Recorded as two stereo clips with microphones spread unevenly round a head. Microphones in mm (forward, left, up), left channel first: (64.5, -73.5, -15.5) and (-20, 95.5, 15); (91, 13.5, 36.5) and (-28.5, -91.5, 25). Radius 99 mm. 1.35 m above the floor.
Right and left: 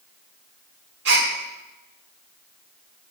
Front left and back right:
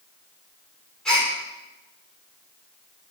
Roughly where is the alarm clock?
I don't hear an alarm clock.